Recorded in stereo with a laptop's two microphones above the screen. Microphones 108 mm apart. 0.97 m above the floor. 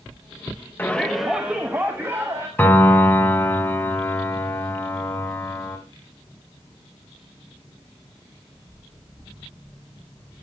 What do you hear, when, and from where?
0.8 s a shout: 20° left (ahead or behind), 0.6 m; by 2.5 s 25° right (ahead or behind), 1.8 m
2.6 s a piano: 15° left (ahead or behind), 1.4 m